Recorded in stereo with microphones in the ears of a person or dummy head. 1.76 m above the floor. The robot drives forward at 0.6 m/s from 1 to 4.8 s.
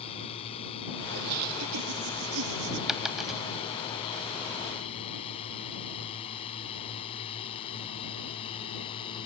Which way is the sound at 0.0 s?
40° left (ahead or behind).